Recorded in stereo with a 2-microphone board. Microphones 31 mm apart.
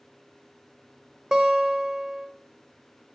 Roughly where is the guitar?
Centre.